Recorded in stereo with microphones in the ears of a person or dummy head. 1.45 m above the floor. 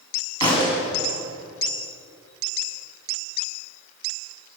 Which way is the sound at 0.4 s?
30° left (ahead or behind).